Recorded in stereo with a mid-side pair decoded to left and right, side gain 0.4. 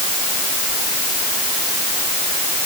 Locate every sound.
Only background noise.